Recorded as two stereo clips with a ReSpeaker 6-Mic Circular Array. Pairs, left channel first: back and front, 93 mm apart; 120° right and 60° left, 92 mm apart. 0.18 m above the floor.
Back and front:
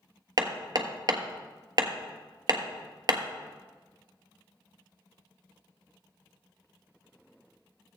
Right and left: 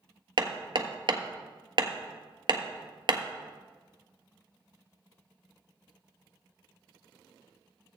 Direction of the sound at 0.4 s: 40° left.